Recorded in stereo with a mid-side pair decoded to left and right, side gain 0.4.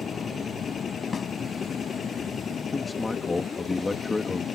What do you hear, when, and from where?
0.0 s a machine running: 50° left
1.1 s a snare drum: 40° left
2.7 s a man speaking: 20° left